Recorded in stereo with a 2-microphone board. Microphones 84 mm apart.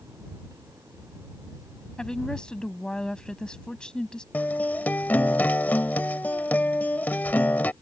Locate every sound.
2.0 s a woman speaking: 10° left (ahead or behind)
4.3 s a guitar: 20° left (ahead or behind)